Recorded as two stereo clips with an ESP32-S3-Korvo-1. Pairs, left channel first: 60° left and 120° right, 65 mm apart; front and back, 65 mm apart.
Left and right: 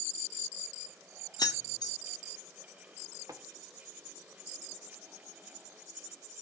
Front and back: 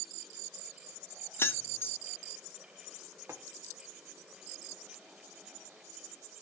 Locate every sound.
1.4 s keys jangling: 55° left, 0.7 m
3.3 s tapping: 135° right, 1.2 m